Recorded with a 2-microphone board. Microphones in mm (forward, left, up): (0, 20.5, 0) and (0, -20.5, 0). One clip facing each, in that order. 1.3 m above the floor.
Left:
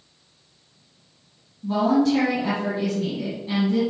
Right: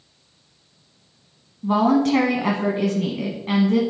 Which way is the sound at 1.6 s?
65° right (ahead or behind).